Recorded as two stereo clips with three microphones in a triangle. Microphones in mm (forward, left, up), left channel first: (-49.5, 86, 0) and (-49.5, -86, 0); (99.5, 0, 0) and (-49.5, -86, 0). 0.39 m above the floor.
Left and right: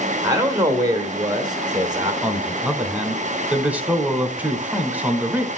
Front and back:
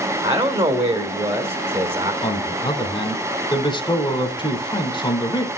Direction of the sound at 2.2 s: 15° right.